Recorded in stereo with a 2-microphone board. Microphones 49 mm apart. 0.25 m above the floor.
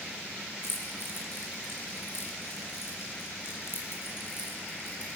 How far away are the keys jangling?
About 3 m.